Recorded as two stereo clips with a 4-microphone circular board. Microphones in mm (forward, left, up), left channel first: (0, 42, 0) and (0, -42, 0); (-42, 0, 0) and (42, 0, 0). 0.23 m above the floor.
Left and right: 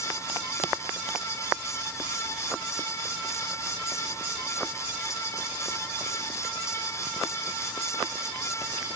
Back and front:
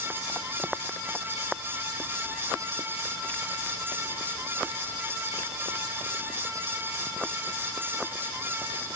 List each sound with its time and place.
Only background noise.